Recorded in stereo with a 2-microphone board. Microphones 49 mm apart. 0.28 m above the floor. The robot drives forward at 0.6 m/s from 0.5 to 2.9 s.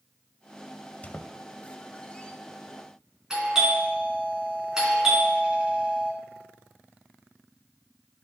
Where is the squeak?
35° left (ahead or behind), 0.5 m; by 2.3 s 20° left (ahead or behind), 0.9 m.